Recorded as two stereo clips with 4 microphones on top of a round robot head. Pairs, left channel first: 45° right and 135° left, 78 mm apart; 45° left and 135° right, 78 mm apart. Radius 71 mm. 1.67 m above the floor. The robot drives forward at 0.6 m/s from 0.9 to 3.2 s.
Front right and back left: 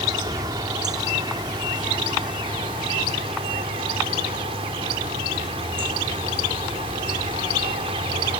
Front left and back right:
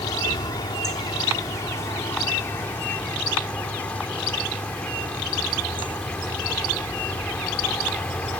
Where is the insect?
95° left; by 8.4 s 120° left.